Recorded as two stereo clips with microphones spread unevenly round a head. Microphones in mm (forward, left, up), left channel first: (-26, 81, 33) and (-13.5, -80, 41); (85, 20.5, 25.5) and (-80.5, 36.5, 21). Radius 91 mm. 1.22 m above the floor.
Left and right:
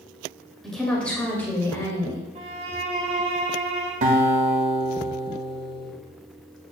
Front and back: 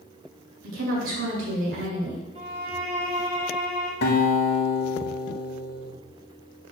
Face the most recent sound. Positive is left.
turn(degrees=-35)